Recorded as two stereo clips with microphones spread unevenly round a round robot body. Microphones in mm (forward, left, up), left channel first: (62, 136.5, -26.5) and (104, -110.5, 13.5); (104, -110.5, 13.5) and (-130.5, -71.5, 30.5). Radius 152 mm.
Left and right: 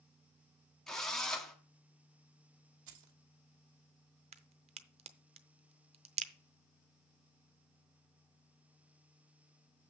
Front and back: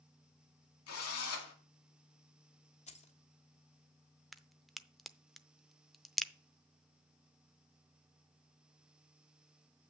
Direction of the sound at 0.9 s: 15° left.